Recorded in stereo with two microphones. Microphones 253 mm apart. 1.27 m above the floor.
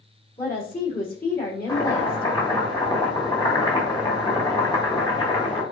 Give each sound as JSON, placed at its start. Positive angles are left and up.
{"t": 0.4, "sound": "a woman speaking", "side_deg": 35, "distance_m": 3.0}
{"t": 1.7, "sound": "chopping", "side_deg": 15, "distance_m": 2.0}